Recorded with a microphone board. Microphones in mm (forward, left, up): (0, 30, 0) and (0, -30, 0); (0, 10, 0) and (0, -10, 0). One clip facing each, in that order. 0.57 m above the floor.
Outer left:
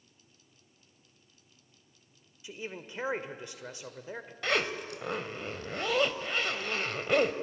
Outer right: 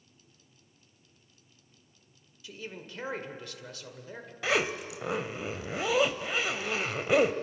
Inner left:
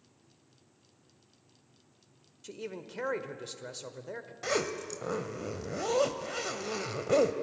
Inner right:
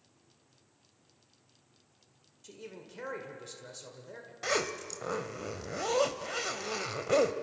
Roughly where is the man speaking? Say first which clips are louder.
Outer left 1 dB, inner left 6 dB; left.